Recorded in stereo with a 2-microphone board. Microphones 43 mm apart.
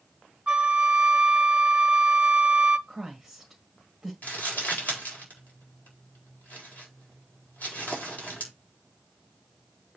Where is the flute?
30° right (ahead or behind), 0.5 m.